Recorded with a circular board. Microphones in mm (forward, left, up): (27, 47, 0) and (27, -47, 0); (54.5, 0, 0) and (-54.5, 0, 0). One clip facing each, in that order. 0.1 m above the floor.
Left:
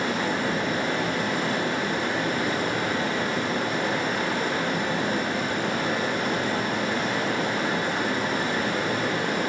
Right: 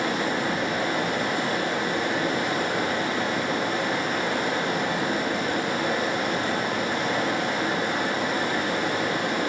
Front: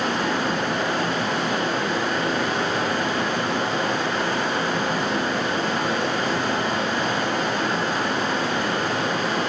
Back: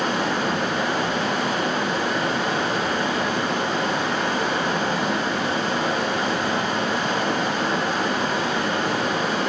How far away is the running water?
About 3 m.